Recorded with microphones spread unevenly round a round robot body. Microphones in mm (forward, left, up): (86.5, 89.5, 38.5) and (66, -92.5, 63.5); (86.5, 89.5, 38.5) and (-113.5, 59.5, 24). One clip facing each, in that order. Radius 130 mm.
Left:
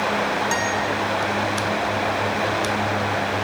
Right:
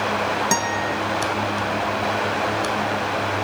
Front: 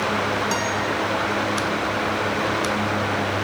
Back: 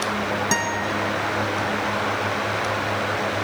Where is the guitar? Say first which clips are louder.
Even, front 1 dB; 115° right, 0.9 m.